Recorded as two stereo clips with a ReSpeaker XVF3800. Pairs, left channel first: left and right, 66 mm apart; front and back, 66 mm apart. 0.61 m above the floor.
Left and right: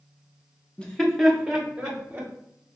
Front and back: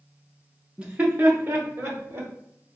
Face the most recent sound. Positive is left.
turn(degrees=-150)